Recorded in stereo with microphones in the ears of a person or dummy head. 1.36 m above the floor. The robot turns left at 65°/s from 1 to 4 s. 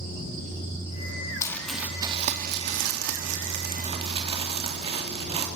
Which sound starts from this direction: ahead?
Crumpling, at 1.4 s.